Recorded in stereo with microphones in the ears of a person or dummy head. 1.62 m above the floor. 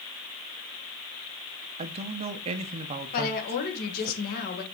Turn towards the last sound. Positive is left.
turn(degrees=50)  # may be behind; listen again after turning